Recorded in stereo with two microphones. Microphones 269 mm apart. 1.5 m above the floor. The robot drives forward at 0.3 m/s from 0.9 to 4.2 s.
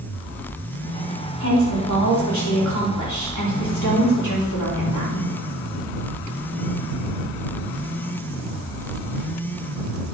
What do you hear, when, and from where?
1.4 s a woman speaking: 75° left (ahead or behind), 4 m; by 5.2 s 85° left, 4 m